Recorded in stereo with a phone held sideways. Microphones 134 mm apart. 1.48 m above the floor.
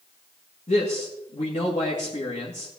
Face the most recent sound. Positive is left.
turn(degrees=60)  # may be behind; listen again after turning